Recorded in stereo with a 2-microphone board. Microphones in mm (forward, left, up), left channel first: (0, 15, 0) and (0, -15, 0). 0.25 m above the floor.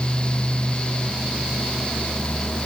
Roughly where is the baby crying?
I don't hear a baby crying.